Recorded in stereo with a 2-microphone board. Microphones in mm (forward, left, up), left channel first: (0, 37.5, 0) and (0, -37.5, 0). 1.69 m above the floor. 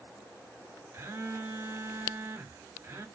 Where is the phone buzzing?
35° right (ahead or behind), 0.7 m.